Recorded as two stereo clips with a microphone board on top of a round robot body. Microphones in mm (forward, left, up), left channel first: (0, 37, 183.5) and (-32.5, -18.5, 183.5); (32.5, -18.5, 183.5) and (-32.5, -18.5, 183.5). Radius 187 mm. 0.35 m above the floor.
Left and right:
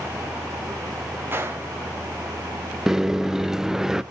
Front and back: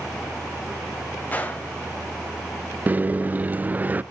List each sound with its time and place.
1.3 s a gunshot: 65° right, 1.7 m
2.9 s a microwave: 165° left, 0.6 m